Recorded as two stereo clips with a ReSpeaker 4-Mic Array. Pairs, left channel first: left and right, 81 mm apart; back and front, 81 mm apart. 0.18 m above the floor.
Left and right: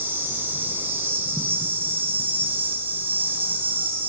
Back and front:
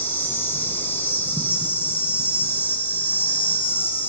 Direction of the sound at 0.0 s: 135° right.